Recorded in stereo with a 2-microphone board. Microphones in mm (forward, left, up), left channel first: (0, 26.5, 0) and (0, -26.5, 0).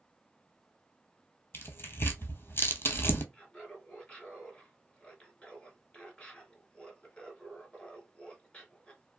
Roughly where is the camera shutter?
I don't hear a camera shutter.